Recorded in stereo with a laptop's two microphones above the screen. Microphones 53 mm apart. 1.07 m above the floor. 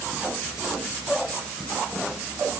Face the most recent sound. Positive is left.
No sound to turn to.